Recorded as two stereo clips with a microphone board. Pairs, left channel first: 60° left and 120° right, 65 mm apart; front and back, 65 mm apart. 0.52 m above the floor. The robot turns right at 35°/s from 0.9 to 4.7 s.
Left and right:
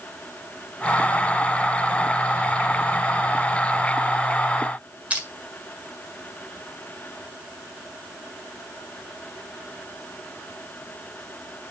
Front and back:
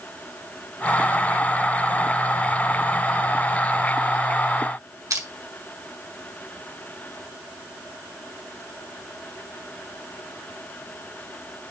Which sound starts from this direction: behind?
Crushing, at 5.1 s.